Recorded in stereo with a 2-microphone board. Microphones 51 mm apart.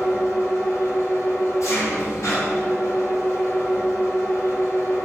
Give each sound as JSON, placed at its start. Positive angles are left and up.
{"t": 0.0, "sound": "an engine running", "side_deg": 80, "distance_m": 1.6}